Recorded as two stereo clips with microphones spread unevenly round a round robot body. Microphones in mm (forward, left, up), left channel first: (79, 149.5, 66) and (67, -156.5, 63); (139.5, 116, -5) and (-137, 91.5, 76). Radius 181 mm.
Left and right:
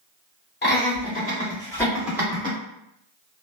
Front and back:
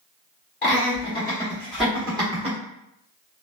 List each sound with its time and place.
0.6 s laughter: 40° left, 1.5 m; by 2.6 s 110° right, 1.0 m